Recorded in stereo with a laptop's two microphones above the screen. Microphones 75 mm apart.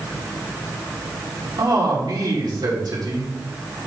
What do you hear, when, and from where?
1.6 s a man speaking: 65° right (ahead or behind), 2 m